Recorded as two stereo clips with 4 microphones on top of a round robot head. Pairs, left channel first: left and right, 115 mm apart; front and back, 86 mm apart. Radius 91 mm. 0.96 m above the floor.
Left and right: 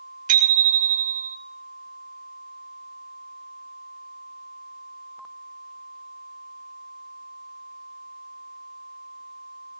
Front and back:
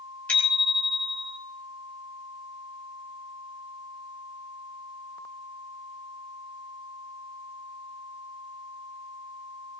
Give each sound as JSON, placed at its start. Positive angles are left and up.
{"t": 0.3, "sound": "a bicycle bell", "azimuth_deg": -80, "distance_m": 2.5}